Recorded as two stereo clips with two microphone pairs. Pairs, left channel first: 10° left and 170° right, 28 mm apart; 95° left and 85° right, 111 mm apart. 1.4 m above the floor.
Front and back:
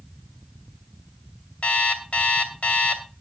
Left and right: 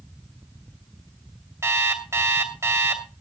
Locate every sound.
1.6 s an alarm clock: 25° right, 2.5 m